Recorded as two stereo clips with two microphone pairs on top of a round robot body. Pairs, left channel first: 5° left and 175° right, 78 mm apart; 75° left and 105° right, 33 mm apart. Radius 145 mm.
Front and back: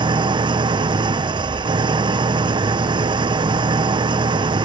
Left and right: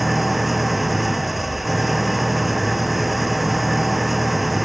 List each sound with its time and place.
0.0 s an engine running: 170° left